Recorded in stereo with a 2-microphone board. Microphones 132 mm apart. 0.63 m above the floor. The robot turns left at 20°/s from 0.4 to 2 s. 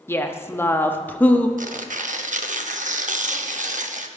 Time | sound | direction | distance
0.1 | a woman speaking | 20° left (ahead or behind) | 0.6 m
1.6 | tearing paper | 80° right | 0.6 m